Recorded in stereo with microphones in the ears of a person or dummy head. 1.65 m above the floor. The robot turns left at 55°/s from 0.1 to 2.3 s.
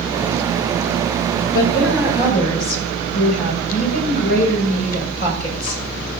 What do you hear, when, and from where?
1.5 s a woman speaking: 95° left, 5.5 m; by 5.8 s 55° left, 5.5 m